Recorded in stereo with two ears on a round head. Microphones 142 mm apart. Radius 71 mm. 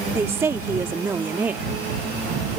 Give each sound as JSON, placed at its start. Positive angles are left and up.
{"t": 0.1, "sound": "a woman speaking", "side_deg": -15}